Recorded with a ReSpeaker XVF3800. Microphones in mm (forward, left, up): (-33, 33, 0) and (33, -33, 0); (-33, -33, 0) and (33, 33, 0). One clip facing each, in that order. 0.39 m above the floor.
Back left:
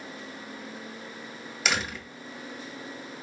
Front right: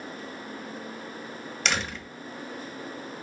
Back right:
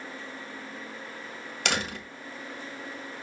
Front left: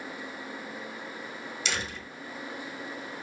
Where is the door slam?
140° right, 1.5 m.